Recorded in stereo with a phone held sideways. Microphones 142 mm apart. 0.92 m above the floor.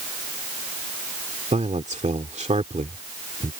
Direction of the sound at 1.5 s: 55° right (ahead or behind).